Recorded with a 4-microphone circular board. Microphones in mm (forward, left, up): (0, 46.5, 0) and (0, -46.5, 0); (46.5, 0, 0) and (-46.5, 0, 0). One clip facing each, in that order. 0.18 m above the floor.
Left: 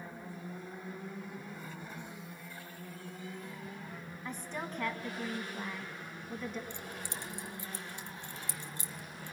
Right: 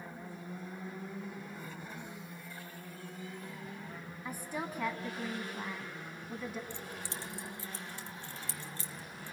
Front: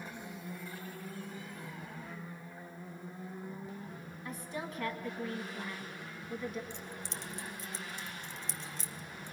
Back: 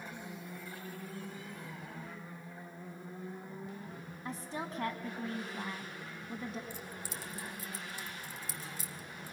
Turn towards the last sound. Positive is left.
turn(degrees=110)